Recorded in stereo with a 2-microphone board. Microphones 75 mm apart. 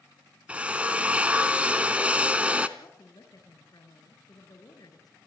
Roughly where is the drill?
Centre.